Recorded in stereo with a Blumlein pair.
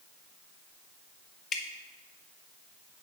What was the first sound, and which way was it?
Dripping, 20° left.